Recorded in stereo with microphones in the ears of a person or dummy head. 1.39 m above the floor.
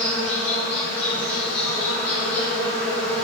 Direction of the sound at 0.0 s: 15° left (ahead or behind).